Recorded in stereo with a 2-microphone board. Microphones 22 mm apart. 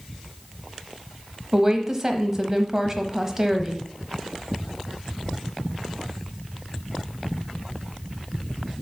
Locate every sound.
1.5 s a woman speaking: 20° right (ahead or behind), 1.0 m